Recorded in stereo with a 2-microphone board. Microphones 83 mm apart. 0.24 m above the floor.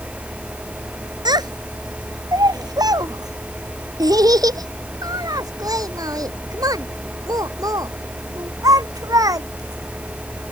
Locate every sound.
1.2 s a child speaking: 60° right (ahead or behind); by 10.5 s 45° right (ahead or behind)